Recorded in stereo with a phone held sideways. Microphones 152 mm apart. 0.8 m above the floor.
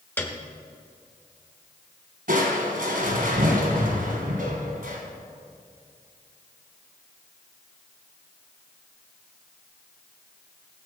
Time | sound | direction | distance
0.2 | a piano | 15° left (ahead or behind) | 1.3 m
2.3 | crushing | 70° right (ahead or behind) | 2.5 m